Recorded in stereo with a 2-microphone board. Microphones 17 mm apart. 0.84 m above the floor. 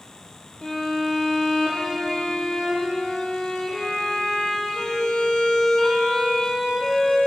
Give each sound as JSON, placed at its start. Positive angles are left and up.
{"t": 0.6, "sound": "a violin", "side_deg": 65, "distance_m": 4.5}